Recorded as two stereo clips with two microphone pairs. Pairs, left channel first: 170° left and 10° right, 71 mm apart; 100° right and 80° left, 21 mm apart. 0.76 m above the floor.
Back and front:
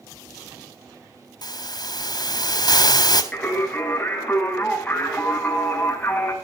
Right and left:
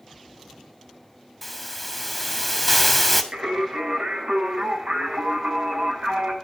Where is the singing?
100° left, 6 m.